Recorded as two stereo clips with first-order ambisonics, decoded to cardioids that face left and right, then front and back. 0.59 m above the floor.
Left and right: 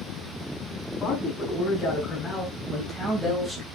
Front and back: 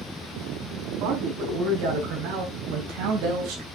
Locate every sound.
1.0 s a man speaking: 155° left, 4 m; by 3.6 s 165° right, 3 m